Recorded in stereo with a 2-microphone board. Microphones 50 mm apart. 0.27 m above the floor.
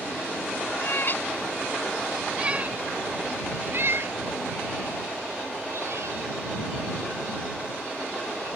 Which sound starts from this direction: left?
A cat meowing, at 0.8 s.